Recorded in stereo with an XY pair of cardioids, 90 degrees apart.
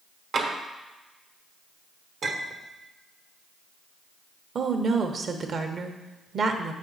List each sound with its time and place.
0.3 s tapping: 65° right, 1.3 m
2.2 s a clink: 65° right, 1.3 m
4.5 s a woman speaking: 55° right, 1.0 m